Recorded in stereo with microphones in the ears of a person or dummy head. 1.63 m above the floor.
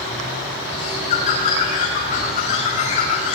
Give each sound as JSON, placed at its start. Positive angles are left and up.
{"t": 0.7, "sound": "a bird", "side_deg": 50, "distance_m": 5.0}